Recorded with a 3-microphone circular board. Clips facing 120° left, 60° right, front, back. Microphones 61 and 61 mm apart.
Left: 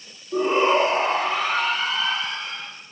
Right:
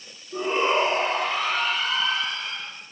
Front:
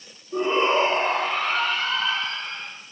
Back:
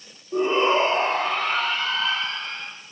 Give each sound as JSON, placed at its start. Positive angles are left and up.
{"t": 0.3, "sound": "a shout", "azimuth_deg": 135, "distance_m": 4.0}